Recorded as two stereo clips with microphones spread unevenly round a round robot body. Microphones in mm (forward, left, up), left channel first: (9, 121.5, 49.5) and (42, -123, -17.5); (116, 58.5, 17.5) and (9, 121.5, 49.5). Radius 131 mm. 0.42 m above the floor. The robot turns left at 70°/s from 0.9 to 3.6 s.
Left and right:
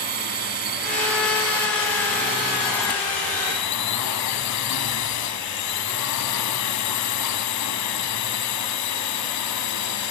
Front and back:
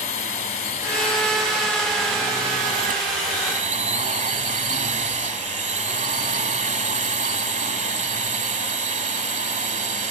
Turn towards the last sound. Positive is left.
turn(degrees=130)